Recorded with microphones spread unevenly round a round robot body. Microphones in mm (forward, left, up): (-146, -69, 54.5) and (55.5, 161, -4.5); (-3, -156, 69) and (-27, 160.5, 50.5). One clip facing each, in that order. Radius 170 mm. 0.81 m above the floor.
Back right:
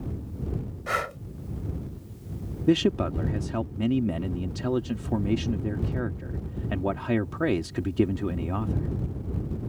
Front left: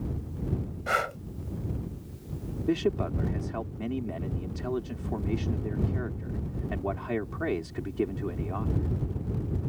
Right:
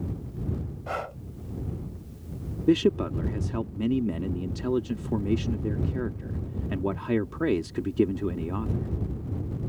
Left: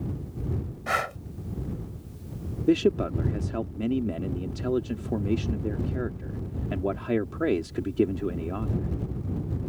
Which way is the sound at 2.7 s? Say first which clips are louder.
Back right 5 dB, even; 165° right.